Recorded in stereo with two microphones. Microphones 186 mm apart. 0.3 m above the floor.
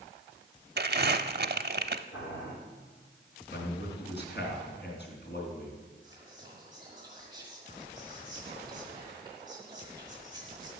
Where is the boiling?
75° left (ahead or behind), 6.5 m.